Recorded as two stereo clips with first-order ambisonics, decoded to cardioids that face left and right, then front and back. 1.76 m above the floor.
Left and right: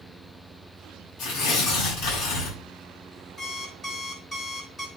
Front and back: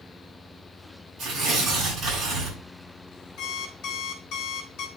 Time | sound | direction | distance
1.2 | tearing paper | 115° left | 5.5 m
3.4 | an alarm clock | 15° left | 2 m